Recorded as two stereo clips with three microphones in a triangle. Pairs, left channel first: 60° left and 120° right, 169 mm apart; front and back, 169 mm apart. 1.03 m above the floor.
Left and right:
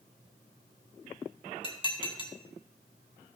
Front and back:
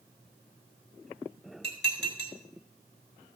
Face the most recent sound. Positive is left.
turn(degrees=0)